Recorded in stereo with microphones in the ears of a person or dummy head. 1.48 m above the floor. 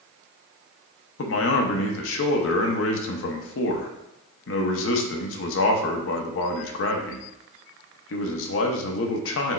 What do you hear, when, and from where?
1.2 s a man speaking: 70° left (ahead or behind), 0.7 m